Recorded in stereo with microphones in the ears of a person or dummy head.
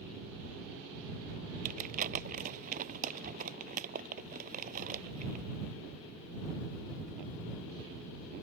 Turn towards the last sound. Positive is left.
turn(degrees=-40)  # may be behind; listen again after turning